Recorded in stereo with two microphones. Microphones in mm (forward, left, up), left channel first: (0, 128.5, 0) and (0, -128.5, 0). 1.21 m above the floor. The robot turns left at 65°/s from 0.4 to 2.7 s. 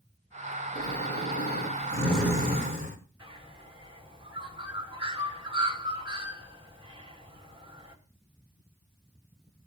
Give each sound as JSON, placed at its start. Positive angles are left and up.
{"t": 0.8, "sound": "snoring", "azimuth_deg": 90, "distance_m": 3.5}
{"t": 3.2, "sound": "a bird", "side_deg": -20, "distance_m": 4.0}